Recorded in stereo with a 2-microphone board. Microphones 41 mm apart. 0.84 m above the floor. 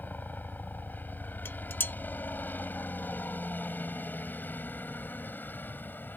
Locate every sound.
0.0 s a helicopter: 50° left (ahead or behind)
1.4 s dishes clattering: 65° left (ahead or behind)